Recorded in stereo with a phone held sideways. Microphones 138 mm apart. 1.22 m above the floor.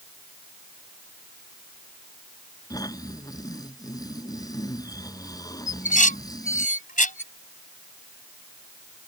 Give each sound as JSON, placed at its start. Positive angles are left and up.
{"t": 2.7, "sound": "snoring", "side_deg": 25}
{"t": 5.7, "sound": "dishes clattering", "side_deg": 70}